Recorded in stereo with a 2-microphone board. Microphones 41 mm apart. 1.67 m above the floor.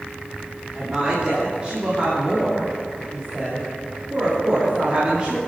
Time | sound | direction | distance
0.7 | a woman speaking | 20° right (ahead or behind) | 3.5 m